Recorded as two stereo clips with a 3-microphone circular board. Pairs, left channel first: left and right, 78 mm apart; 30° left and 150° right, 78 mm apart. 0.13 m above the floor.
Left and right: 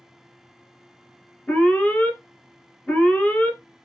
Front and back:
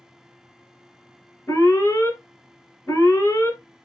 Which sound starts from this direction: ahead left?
An alarm, at 1.5 s.